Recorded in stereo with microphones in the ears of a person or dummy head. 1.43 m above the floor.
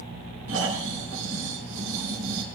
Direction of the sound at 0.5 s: 75° right (ahead or behind).